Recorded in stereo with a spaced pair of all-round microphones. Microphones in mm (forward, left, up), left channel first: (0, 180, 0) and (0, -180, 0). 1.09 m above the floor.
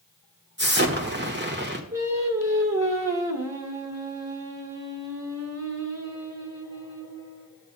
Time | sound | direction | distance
0.6 | an explosion | 30° right (ahead or behind) | 1.4 m
1.9 | singing | 40° right (ahead or behind) | 2 m